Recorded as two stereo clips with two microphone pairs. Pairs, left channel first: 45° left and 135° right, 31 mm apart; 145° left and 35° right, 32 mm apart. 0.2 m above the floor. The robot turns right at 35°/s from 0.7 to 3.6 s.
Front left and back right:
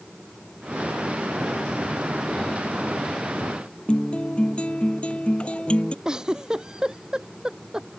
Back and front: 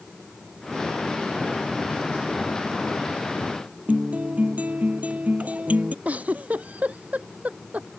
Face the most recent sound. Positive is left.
turn(degrees=-65)